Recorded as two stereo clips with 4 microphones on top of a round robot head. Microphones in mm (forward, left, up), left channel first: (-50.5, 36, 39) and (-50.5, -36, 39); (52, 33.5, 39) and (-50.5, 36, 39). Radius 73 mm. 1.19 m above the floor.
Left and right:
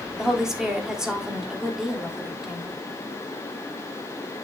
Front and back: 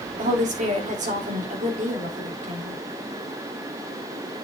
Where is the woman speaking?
170° right, 3.5 m.